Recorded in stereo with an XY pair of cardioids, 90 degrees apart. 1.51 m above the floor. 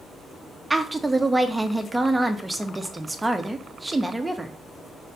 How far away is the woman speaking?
About 1.4 m.